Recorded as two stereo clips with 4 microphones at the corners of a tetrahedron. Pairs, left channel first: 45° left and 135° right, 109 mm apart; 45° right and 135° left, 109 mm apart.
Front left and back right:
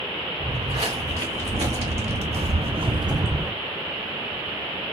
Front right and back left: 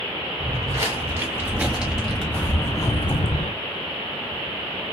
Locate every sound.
0.4 s footsteps: 165° right, 1.7 m; by 3.5 s 70° right, 0.8 m